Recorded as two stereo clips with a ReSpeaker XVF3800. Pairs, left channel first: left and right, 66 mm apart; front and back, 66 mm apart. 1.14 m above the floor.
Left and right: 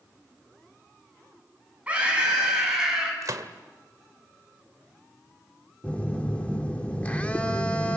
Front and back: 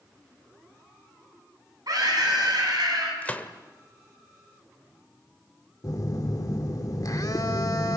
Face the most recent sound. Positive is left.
turn(degrees=20)